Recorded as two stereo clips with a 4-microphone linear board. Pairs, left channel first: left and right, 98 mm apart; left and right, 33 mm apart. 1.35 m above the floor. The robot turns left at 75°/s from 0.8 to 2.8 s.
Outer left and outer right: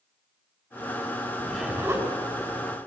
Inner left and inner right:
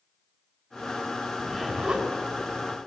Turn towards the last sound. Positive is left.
turn(degrees=-80)